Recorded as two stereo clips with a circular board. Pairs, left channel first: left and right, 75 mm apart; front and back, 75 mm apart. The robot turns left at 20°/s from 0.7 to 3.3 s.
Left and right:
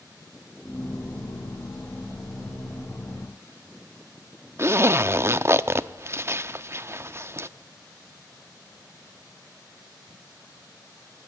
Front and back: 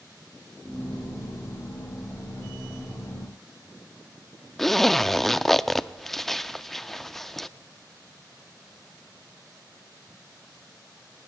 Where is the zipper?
85° right, 0.5 m.